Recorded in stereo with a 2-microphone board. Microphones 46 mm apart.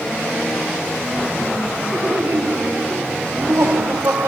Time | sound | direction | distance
1.9 | laughter | 75° right (ahead or behind) | 3 m